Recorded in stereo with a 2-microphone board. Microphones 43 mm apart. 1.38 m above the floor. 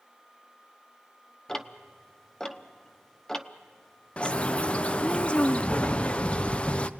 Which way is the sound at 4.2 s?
30° left (ahead or behind).